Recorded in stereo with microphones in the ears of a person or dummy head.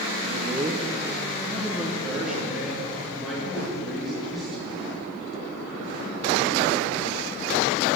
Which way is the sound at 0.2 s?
35° right (ahead or behind).